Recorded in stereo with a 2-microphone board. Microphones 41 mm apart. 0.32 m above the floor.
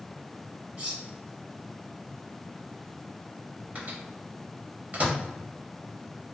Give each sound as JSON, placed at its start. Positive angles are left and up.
{"t": 0.8, "sound": "cutlery clinking", "side_deg": -30, "distance_m": 0.9}
{"t": 3.8, "sound": "a microwave", "side_deg": -45, "distance_m": 1.0}